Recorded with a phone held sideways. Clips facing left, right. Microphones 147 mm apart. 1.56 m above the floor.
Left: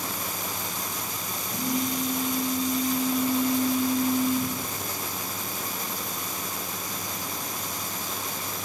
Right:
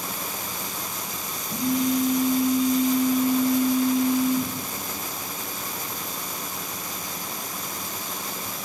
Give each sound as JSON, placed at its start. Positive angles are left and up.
{"t": 1.5, "sound": "a phone buzzing", "side_deg": -55, "distance_m": 3.5}